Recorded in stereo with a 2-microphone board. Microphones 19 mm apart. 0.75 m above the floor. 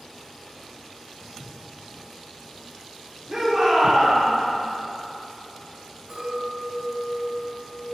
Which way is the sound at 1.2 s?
10° left (ahead or behind).